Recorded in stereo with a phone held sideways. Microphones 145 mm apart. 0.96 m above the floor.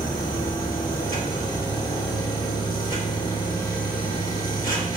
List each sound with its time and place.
0.0 s a machine running: 75° left (ahead or behind), 1.3 m